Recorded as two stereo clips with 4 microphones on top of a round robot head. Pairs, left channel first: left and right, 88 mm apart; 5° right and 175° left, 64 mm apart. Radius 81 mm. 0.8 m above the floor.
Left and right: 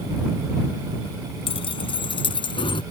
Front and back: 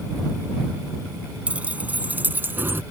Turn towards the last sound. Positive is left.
turn(degrees=120)